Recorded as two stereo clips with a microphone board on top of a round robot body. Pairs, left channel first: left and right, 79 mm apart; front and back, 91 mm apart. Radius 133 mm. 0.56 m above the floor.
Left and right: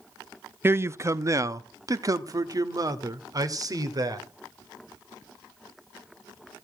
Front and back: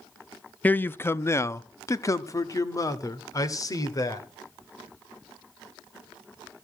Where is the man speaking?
60° right, 0.7 m; by 4.2 s 50° right, 2.5 m.